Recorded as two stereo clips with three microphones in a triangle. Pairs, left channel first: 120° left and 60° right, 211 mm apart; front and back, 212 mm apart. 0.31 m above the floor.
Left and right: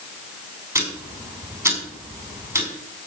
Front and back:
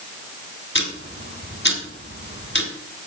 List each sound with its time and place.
0.8 s ticking: 15° left, 3 m